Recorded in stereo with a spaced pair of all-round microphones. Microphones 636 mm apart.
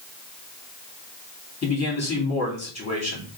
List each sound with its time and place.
1.6 s a man speaking: 25° left (ahead or behind), 2.5 m